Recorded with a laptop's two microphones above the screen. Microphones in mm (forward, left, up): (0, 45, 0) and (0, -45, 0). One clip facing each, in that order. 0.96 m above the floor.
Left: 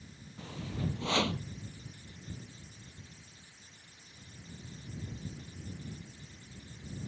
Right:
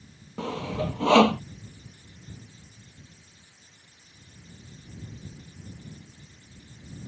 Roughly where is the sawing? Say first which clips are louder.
Right 10 dB; right.